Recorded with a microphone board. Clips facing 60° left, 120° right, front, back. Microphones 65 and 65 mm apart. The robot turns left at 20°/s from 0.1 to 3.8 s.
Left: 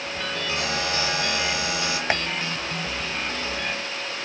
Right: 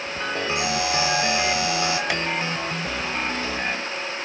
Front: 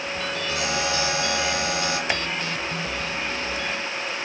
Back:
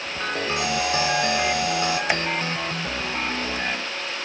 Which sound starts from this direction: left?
Tapping, at 2.1 s.